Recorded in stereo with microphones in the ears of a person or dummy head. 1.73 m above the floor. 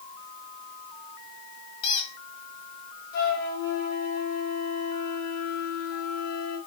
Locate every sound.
1.8 s a squeak: 30° left (ahead or behind), 1.7 m
3.1 s a flute: 55° left (ahead or behind), 4.5 m